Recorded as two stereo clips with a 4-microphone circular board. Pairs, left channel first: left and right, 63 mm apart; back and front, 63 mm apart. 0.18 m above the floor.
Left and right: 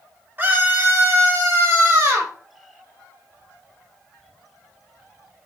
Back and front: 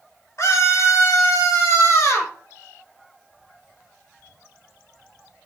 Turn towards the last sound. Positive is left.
turn(degrees=-140)